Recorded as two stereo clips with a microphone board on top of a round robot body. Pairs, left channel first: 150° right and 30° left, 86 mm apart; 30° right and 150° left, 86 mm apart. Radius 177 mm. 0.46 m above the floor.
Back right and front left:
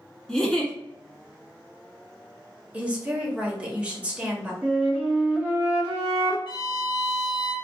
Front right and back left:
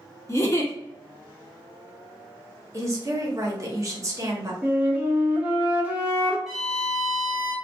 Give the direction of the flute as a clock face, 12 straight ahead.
9 o'clock.